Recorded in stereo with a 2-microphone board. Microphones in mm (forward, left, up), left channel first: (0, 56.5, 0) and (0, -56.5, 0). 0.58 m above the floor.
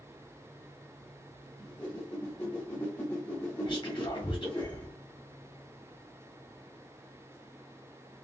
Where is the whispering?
45° left (ahead or behind), 1.5 m.